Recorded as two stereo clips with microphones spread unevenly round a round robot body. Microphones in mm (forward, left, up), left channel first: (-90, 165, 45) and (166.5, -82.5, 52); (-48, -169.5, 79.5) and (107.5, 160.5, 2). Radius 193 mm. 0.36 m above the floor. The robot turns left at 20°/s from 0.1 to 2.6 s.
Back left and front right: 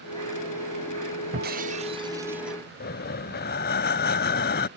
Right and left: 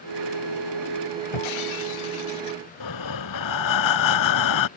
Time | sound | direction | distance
1.3 | breaking glass | 110° right | ?
2.8 | breathing | 155° right | ?